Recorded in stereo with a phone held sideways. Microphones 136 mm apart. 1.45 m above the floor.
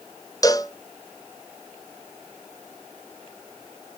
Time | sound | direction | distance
0.4 | a cowbell | 25° left (ahead or behind) | 0.6 m